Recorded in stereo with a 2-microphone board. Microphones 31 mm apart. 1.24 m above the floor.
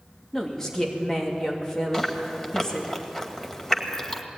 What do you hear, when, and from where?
0.3 s a woman speaking: 20° left (ahead or behind), 2.5 m
1.9 s chewing: 15° left (ahead or behind), 2 m